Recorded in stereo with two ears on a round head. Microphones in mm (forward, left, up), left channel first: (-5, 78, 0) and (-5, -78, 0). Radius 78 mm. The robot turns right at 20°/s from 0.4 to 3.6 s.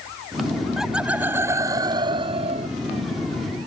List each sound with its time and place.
0.8 s laughter: straight behind; by 2.7 s 140° right